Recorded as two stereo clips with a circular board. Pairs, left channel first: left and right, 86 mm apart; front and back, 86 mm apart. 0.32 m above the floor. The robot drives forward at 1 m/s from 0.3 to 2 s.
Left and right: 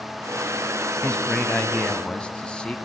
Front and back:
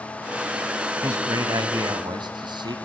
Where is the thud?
No thud in this recording.